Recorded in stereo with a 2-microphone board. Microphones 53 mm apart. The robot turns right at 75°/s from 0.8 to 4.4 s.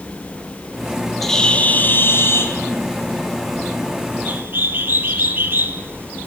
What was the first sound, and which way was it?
A bird, 5° left.